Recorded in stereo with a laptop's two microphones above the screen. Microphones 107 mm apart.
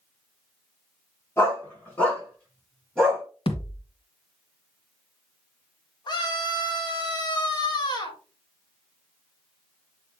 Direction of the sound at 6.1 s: 40° left (ahead or behind).